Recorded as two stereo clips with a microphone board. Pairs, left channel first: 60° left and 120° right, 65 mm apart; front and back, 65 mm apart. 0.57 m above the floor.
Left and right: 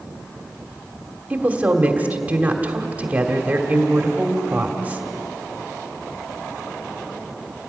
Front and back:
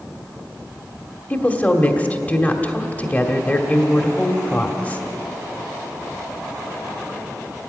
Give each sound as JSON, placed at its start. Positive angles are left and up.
{"t": 1.3, "sound": "a woman speaking", "azimuth_deg": -60, "distance_m": 1.8}